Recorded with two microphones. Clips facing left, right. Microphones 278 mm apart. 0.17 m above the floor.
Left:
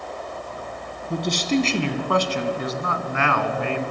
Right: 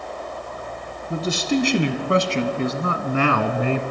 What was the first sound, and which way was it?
A man speaking, 5° right (ahead or behind).